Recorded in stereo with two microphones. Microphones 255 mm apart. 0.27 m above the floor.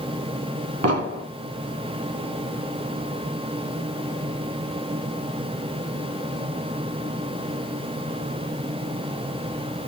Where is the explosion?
70° right (ahead or behind), 0.8 m.